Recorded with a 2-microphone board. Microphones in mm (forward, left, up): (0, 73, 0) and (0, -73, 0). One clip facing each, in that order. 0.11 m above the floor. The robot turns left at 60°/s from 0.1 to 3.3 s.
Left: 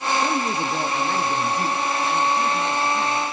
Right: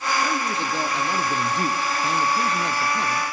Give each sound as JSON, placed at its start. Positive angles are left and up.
{"t": 0.2, "sound": "a man speaking", "azimuth_deg": 45, "distance_m": 1.6}